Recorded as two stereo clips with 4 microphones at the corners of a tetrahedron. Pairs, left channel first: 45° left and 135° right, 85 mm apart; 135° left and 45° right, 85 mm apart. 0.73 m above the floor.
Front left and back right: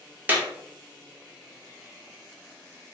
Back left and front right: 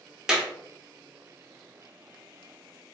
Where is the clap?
115° right, 0.7 m.